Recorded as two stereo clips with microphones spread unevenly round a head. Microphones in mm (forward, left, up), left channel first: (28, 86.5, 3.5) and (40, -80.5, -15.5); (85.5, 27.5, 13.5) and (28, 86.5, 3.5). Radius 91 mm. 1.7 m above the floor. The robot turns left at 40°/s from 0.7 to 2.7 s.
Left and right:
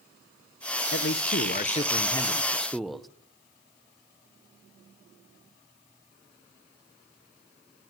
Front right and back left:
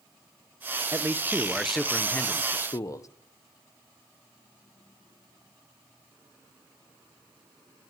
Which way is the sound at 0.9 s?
75° left.